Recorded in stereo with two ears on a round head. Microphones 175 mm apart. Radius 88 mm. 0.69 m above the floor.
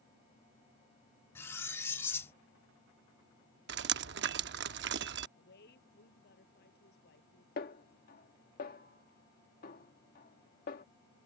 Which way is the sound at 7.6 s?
50° left (ahead or behind).